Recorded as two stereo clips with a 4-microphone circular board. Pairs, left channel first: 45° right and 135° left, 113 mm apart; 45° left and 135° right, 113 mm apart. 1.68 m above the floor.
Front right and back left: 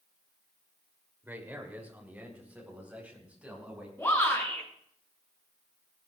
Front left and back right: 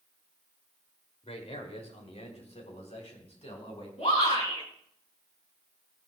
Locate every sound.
1.2 s a man speaking: 60° left, 3 m; by 3.9 s 55° left, 6 m
4.0 s a shout: 25° left, 7.5 m